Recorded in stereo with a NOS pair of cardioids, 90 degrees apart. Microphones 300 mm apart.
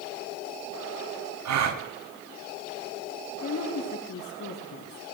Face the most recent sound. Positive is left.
turn(degrees=65)